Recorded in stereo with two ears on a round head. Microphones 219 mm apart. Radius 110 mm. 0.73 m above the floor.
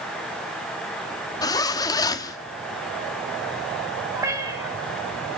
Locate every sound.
1.4 s a zipper: 15° left (ahead or behind), 0.9 m
4.2 s a cat meowing: 15° right (ahead or behind), 2 m